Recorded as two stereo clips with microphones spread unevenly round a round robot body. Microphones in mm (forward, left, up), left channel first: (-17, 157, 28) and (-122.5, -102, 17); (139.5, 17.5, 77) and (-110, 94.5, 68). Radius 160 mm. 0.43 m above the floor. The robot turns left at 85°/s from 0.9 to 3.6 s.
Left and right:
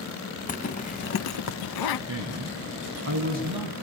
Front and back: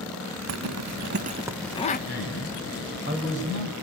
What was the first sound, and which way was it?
A zipper, 130° left.